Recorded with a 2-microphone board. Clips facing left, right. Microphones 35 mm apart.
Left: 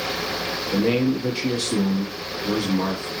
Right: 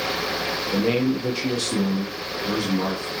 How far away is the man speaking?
About 0.9 m.